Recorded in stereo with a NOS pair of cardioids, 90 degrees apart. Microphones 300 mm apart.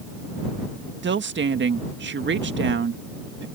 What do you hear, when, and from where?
1.0 s a woman speaking: 35° right